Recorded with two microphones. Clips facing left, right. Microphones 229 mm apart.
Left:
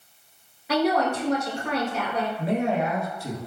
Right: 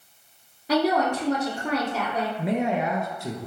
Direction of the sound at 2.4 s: 20° right (ahead or behind).